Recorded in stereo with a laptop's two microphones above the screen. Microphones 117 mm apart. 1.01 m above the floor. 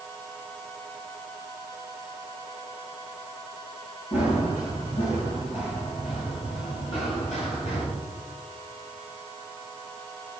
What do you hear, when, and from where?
4.1 s running footsteps: 75° left (ahead or behind), 6.5 m; by 7.9 s 65° left (ahead or behind), 9.5 m